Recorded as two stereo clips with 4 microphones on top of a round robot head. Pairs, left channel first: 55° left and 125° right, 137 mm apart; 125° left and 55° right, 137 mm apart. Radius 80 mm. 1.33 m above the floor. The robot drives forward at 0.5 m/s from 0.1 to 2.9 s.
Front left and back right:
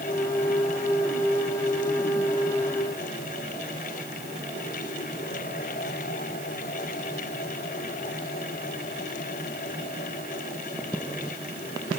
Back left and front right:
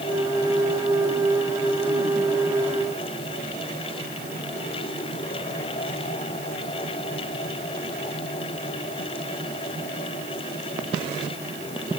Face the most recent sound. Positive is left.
No sound to turn to.